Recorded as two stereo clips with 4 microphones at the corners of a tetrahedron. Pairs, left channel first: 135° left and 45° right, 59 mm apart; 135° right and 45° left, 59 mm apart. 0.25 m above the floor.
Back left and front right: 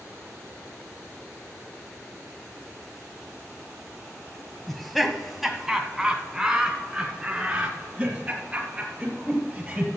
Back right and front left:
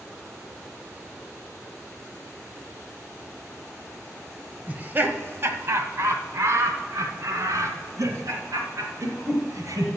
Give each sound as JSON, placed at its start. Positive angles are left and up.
{"t": 4.7, "sound": "laughter", "azimuth_deg": 55, "distance_m": 1.0}